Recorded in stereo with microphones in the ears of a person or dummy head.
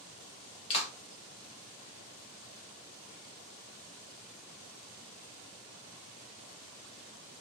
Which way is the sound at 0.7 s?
30° left (ahead or behind).